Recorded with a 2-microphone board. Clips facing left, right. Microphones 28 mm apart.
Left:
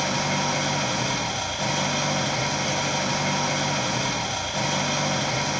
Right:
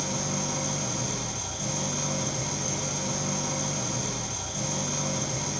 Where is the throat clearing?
No throat clearing in this recording.